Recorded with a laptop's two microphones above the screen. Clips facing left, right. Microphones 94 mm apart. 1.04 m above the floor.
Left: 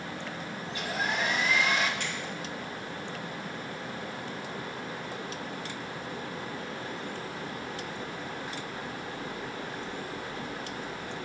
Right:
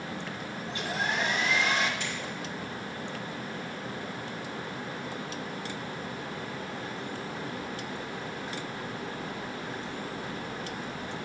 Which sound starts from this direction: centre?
A hair dryer, at 0.7 s.